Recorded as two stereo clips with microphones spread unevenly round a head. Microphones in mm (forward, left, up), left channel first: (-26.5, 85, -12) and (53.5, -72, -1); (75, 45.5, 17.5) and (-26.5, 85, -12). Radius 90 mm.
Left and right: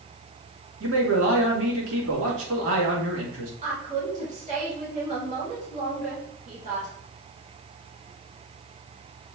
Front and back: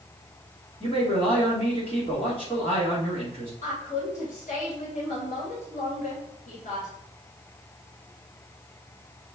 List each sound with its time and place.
0.8 s a man speaking: 80° right, 3 m
3.6 s a woman speaking: 10° right, 2.5 m